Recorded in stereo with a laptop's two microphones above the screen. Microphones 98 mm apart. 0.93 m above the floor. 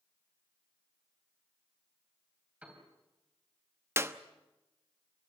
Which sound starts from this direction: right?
A clap, at 4.0 s.